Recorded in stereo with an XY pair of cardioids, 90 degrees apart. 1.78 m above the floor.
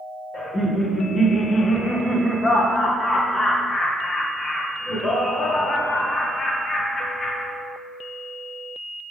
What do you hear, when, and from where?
0.3 s laughter: 45° left, 1.5 m